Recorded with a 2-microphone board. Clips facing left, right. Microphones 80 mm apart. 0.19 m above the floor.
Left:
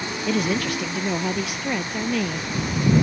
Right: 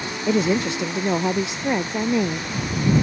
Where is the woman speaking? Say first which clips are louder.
Right 4 dB; 25° right (ahead or behind).